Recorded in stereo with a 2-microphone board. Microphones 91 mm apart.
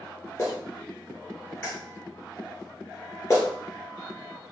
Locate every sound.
0.4 s a clap: 35° left (ahead or behind), 1.5 m